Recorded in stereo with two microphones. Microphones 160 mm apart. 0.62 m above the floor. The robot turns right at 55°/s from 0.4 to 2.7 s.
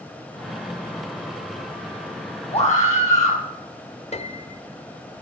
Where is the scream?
35° left (ahead or behind), 6 m; by 3.4 s 45° left (ahead or behind), 6 m.